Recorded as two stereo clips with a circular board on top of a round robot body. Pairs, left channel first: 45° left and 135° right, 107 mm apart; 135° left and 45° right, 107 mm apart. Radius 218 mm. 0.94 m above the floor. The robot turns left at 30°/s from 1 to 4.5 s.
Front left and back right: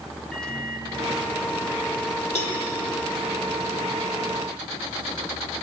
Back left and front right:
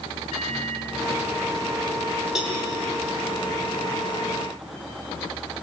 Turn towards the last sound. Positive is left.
turn(degrees=-25)